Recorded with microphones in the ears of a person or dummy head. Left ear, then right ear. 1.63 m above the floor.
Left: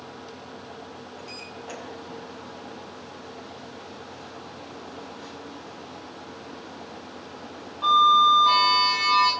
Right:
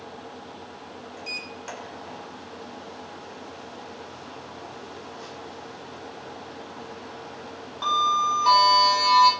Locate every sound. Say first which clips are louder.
1.2 s a sliding door: right 7 dB; 80° right, 6 m